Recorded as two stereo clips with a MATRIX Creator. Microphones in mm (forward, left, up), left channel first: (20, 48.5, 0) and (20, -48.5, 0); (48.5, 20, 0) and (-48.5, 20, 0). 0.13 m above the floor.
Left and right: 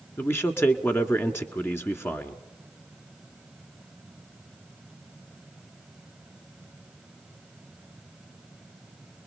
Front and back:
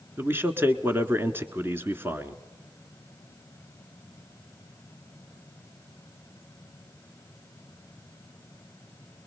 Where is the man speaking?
135° left, 1.4 m.